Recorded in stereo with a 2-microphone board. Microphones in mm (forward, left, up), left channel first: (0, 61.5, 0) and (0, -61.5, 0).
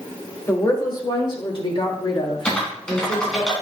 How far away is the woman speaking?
About 1.7 m.